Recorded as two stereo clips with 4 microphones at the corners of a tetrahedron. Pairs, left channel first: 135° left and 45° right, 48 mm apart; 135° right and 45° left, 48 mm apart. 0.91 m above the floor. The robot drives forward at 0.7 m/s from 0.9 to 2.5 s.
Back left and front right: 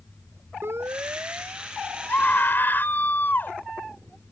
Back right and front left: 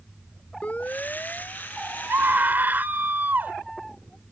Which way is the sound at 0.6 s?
75° right.